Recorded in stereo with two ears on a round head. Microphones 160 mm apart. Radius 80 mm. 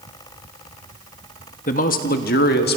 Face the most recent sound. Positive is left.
turn(degrees=60)  # may be behind; listen again after turning